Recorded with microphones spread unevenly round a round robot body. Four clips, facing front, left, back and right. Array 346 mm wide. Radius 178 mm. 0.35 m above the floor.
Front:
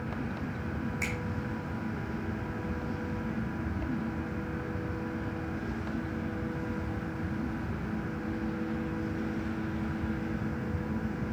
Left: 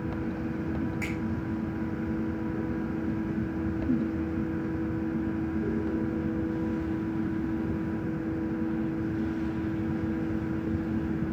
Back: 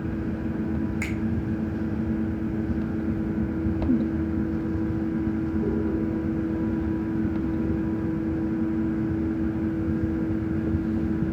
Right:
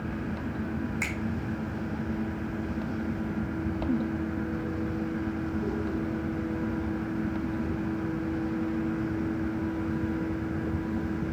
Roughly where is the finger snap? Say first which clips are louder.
Left 2 dB, back 6 dB; behind right.